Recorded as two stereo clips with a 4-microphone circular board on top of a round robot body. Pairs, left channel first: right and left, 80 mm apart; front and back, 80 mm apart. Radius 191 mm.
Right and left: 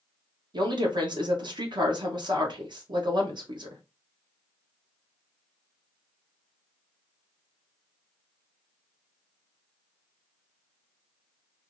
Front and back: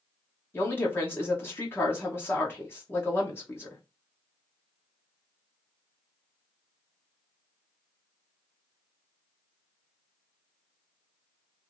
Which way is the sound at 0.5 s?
65° left.